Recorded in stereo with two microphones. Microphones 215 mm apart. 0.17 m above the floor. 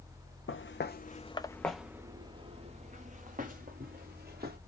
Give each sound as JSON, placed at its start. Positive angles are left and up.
{"t": 0.5, "sound": "footsteps", "side_deg": 65, "distance_m": 0.6}